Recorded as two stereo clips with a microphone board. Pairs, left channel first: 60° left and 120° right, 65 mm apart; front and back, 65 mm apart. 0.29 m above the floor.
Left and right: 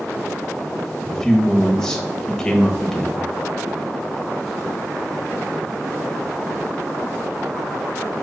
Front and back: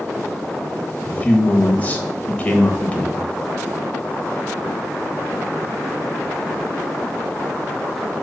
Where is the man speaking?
5° right, 1.0 m.